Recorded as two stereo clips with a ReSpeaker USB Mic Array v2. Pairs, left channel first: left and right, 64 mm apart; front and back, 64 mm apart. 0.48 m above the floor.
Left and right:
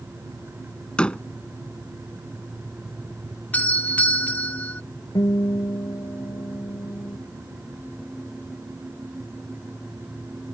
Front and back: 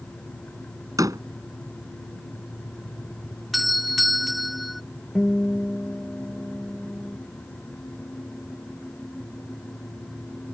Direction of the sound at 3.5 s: 95° left.